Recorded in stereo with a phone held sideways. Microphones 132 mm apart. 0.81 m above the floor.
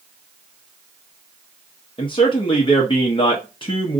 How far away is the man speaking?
About 0.7 m.